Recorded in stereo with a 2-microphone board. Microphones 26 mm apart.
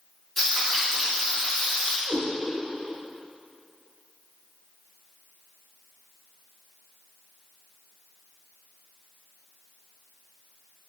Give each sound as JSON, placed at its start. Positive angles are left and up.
{"t": 0.4, "sound": "frying", "side_deg": 20, "distance_m": 1.4}
{"t": 2.1, "sound": "a cat meowing", "side_deg": -55, "distance_m": 1.1}